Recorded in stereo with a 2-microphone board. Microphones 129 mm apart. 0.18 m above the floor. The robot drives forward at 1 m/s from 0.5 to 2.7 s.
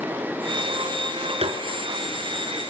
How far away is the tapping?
About 3 m.